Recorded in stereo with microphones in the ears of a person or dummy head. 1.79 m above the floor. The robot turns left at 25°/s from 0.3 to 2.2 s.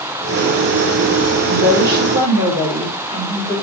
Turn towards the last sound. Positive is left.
turn(degrees=-20)  # may be behind; listen again after turning